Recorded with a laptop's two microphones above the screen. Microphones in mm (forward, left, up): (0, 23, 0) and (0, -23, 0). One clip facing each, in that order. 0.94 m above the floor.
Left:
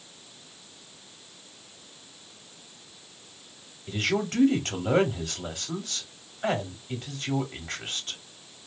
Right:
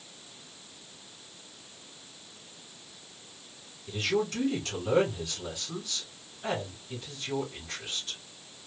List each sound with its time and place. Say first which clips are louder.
3.9 s a man speaking: left 1 dB; 45° left (ahead or behind), 2 m